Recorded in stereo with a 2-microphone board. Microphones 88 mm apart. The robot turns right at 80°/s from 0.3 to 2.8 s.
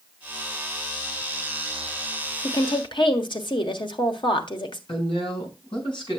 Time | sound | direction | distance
2.4 | a woman speaking | 50° left (ahead or behind) | 1.5 m
4.9 | a woman speaking | 65° left (ahead or behind) | 4.5 m